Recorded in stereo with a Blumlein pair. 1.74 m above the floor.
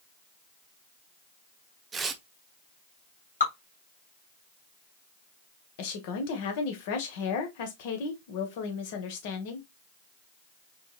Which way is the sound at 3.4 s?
70° left.